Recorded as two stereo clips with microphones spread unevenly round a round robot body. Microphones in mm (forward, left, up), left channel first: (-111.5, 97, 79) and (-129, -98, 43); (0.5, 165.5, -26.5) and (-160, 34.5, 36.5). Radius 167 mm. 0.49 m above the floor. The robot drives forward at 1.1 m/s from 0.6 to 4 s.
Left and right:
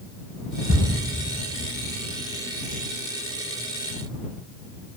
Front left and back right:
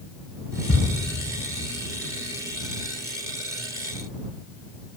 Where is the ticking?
10° right, 4 m.